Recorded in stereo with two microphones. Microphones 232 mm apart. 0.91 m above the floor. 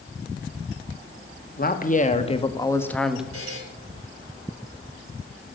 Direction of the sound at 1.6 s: 40° left (ahead or behind).